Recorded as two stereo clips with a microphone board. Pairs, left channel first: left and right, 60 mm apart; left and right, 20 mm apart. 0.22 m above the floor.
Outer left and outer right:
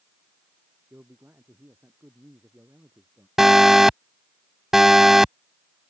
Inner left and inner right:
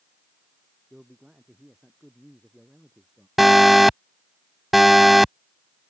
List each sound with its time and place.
0.9 s a man speaking: 35° right (ahead or behind)
3.4 s an alarm: 5° right (ahead or behind)